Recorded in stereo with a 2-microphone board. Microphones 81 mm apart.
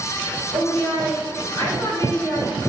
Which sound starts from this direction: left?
A woman speaking, at 0.5 s.